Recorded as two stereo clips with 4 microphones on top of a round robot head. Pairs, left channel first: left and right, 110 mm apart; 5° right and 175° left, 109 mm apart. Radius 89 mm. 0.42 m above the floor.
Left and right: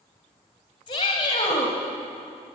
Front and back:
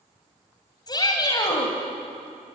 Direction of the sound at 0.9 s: 40° left.